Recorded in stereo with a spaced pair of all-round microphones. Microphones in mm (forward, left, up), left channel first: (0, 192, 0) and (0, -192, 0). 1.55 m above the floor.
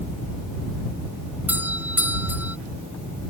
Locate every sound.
1.5 s a doorbell: 5° right (ahead or behind)